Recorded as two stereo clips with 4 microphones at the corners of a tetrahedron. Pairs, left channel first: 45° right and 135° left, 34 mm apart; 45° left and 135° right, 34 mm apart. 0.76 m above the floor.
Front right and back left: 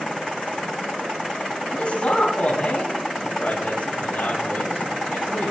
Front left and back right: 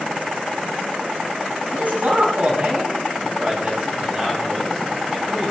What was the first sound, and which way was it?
A man speaking, 100° right.